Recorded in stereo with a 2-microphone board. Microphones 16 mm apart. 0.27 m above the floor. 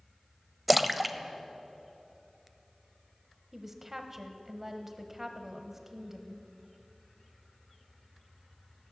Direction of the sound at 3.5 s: 15° right (ahead or behind).